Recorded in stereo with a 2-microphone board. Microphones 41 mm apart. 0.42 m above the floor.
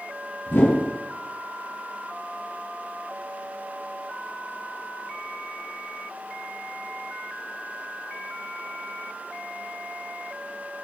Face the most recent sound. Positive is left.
turn(degrees=55)  # may be behind; listen again after turning